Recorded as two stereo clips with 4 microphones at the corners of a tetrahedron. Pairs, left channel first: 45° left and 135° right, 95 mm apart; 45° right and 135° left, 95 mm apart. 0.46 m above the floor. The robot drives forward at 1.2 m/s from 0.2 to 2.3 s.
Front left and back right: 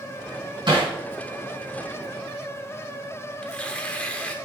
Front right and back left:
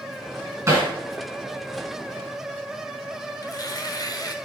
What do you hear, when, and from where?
0.7 s hammering: 170° right, 3.5 m
3.4 s tearing paper: 30° right, 0.8 m